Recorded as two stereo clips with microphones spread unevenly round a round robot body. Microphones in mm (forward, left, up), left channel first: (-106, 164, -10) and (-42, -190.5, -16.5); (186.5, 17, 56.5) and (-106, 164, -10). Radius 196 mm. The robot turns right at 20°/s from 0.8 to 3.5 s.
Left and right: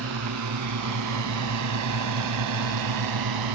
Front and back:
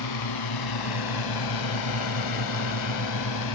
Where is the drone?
25° right; by 3.5 s 65° right.